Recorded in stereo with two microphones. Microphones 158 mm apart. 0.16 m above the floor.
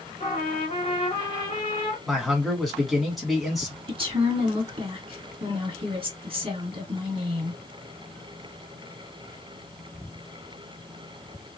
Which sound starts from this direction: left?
A trumpet, at 0.2 s.